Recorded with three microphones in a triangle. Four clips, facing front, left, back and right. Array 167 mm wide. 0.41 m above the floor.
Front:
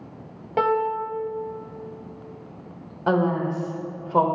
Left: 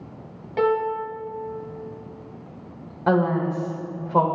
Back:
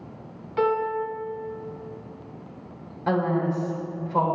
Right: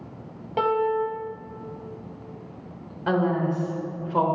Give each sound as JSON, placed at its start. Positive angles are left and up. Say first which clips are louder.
{"t": 0.6, "sound": "a piano", "louder": "left 1 dB, front 1 dB", "azimuth_deg": -20, "distance_m": 1.2}
{"t": 3.1, "sound": "a woman speaking", "louder": "left 2 dB, front 2 dB", "azimuth_deg": 45, "distance_m": 1.7}